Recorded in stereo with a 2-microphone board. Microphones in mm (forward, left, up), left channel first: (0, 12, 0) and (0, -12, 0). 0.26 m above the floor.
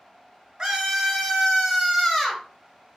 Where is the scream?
30° right (ahead or behind), 1.2 m; by 2.4 s 20° left (ahead or behind), 1.1 m.